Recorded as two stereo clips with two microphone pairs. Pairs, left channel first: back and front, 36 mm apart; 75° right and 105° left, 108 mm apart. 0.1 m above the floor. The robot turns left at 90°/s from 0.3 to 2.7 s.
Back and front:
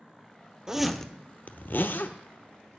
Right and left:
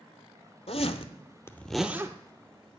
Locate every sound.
0.7 s a zipper: 70° right, 0.7 m; by 2.8 s 105° left, 0.7 m